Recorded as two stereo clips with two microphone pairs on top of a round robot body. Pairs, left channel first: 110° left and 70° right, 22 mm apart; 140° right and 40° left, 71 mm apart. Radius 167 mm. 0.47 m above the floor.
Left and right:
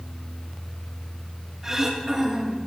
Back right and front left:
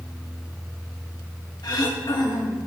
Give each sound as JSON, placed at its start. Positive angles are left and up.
{"t": 1.6, "sound": "throat clearing", "azimuth_deg": -135, "distance_m": 3.0}